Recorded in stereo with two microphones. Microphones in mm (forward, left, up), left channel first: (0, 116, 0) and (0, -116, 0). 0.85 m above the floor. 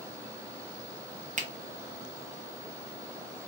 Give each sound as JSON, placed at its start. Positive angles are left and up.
{"t": 1.4, "sound": "a finger snap", "side_deg": -35, "distance_m": 0.7}